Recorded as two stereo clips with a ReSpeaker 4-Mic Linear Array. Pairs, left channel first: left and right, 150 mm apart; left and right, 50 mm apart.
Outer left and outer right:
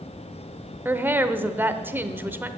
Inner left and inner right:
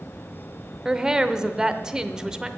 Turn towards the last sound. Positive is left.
turn(degrees=-10)  # may be behind; listen again after turning